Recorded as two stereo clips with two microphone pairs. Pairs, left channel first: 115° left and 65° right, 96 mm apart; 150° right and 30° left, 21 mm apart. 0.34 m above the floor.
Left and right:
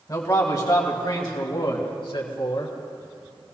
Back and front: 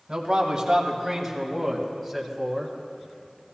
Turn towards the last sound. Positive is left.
turn(degrees=140)